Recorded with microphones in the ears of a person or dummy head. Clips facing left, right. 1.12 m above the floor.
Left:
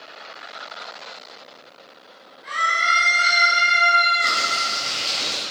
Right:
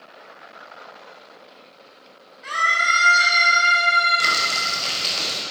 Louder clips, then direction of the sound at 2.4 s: Even; 65° right (ahead or behind).